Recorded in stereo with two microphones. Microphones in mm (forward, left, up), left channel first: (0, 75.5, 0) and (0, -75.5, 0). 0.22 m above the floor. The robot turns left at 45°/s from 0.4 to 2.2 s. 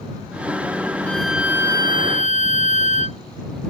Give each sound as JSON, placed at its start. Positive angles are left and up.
{"t": 1.1, "sound": "a violin", "azimuth_deg": 10}